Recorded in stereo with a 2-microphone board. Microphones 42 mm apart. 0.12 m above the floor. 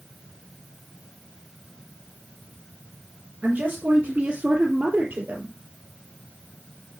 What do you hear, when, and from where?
3.4 s a woman speaking: 40° right (ahead or behind), 2.5 m; by 5.5 s 35° right (ahead or behind), 3 m